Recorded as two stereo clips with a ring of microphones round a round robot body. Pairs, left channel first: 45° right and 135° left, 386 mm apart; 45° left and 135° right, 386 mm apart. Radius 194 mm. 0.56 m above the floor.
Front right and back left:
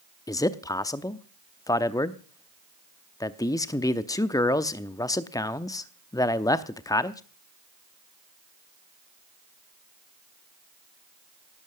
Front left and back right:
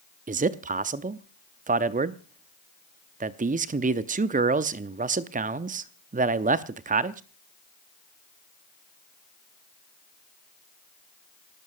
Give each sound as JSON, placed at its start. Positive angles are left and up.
{"t": 0.3, "sound": "a man speaking", "azimuth_deg": -110, "distance_m": 0.6}